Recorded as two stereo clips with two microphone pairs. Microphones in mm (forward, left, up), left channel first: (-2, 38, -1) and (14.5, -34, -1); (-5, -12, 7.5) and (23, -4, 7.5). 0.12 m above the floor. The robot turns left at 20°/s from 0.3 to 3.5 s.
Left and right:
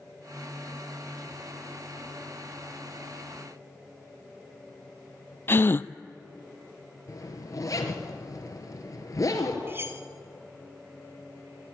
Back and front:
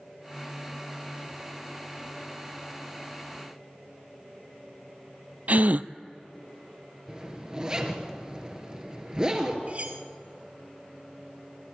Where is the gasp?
45° left, 0.5 m.